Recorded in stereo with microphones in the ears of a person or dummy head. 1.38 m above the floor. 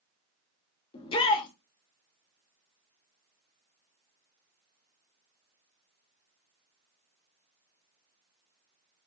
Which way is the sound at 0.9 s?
25° left (ahead or behind).